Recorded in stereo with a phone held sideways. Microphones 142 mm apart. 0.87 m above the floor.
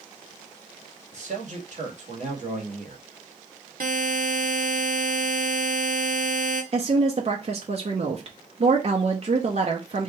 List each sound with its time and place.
1.1 s a man speaking: 60° right (ahead or behind), 1.6 m
3.8 s a buzzer: 75° right (ahead or behind), 0.9 m
6.7 s a woman speaking: 50° right (ahead or behind), 0.7 m